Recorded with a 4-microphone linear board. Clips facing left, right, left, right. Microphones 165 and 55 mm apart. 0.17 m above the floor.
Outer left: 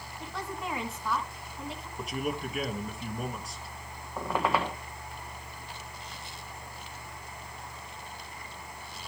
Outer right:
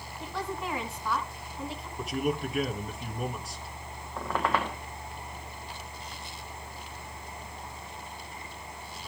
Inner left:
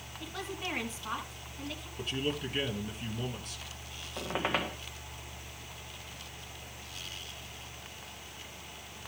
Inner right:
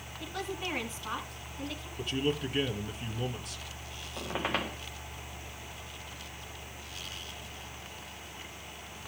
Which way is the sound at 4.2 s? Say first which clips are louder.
Outer left 1 dB, inner left 1 dB; 5° left (ahead or behind).